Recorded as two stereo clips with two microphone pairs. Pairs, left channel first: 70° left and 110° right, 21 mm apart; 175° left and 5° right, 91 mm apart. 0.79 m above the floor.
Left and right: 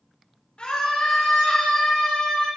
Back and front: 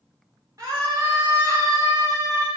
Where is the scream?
40° left, 2.5 m.